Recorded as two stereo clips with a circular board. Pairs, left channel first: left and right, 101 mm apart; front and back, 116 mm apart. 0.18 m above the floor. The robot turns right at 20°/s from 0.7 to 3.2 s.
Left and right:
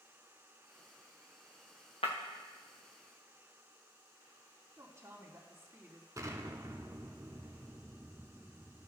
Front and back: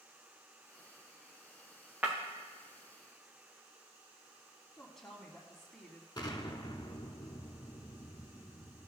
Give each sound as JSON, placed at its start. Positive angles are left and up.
{"t": 2.0, "sound": "breaking glass", "azimuth_deg": 105, "distance_m": 2.5}
{"t": 4.8, "sound": "a woman speaking", "azimuth_deg": -80, "distance_m": 1.4}
{"t": 6.2, "sound": "an explosion", "azimuth_deg": -40, "distance_m": 0.8}